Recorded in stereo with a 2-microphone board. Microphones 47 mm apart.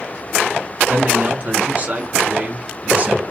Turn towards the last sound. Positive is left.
turn(degrees=-30)  # may be behind; listen again after turning